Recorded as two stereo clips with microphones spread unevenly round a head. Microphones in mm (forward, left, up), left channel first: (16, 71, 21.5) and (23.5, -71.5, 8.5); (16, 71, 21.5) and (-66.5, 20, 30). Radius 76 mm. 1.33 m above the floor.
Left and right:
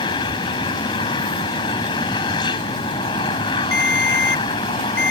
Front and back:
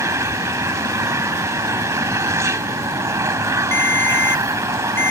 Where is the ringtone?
100° left.